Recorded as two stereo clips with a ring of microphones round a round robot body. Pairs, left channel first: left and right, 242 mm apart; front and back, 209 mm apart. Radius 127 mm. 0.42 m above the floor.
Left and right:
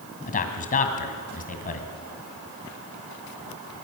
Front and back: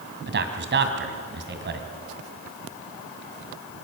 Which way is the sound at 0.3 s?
145° left.